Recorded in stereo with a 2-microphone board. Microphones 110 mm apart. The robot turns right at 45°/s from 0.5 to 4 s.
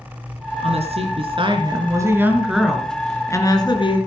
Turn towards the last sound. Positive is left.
turn(degrees=60)